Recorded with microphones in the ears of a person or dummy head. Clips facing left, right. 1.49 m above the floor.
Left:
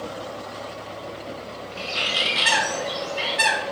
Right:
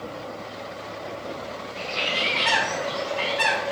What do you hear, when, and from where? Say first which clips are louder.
1.8 s a bird: right 1 dB; 65° left (ahead or behind), 4.5 m